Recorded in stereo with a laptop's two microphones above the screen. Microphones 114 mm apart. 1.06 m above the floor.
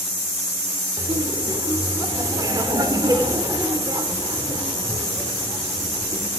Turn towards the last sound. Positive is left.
turn(degrees=-35)  # may be behind; listen again after turning